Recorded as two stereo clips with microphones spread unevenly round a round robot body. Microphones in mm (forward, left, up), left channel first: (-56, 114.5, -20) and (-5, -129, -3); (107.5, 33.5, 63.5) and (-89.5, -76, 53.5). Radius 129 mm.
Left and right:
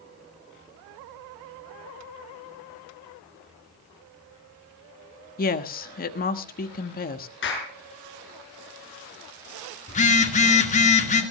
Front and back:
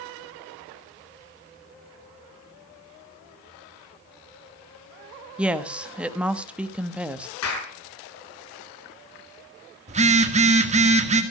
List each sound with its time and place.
5.4 s a woman speaking: 130° left, 1.2 m
7.4 s a clap: 50° left, 6 m
9.9 s a phone buzzing: 155° left, 1.9 m